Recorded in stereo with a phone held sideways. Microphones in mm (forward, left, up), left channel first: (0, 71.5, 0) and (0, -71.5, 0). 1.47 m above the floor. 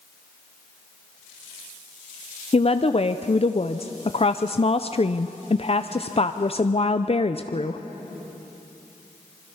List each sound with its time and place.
2.5 s a woman speaking: 45° left (ahead or behind), 0.5 m